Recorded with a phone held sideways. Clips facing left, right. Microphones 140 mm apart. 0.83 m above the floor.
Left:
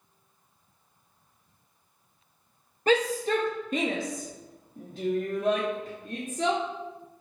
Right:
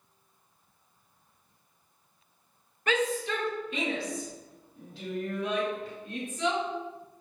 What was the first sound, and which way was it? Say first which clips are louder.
A shout: left 5 dB; 35° left (ahead or behind).